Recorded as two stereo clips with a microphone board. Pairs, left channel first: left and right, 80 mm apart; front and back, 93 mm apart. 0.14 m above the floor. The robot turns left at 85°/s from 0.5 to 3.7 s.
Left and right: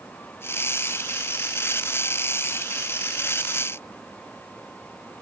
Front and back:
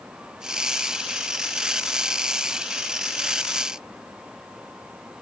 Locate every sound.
Only background noise.